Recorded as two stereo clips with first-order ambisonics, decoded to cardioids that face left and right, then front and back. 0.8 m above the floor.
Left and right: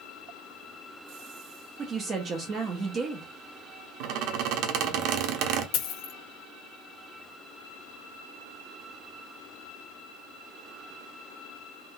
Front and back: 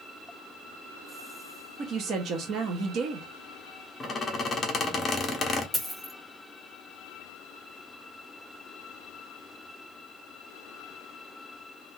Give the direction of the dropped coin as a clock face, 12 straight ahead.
9 o'clock.